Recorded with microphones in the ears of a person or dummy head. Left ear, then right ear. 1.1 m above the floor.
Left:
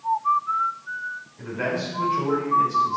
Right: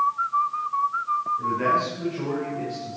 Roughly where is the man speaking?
Centre.